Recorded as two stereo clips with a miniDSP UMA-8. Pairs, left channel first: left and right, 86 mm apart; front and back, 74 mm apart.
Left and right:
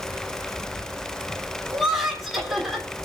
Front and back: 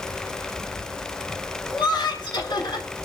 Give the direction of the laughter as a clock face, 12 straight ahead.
12 o'clock.